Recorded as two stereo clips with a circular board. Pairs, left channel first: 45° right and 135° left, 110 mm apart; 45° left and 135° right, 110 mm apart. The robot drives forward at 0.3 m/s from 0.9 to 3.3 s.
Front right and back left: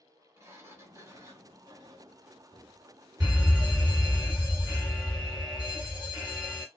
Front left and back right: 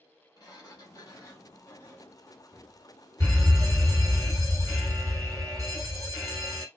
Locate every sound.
0.4 s a sliding door: 80° left, 1.0 m; by 2.8 s 125° left, 1.1 m
3.2 s a fire alarm: 150° right, 2.5 m